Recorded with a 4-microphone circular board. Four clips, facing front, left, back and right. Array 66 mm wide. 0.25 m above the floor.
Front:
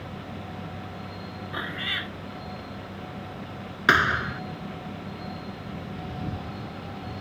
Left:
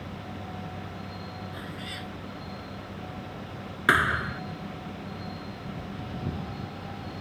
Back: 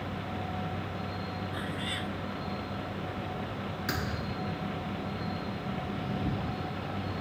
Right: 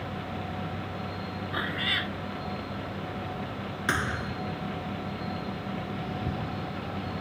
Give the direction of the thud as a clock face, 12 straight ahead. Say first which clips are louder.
Left 7 dB, front 17 dB; 11 o'clock.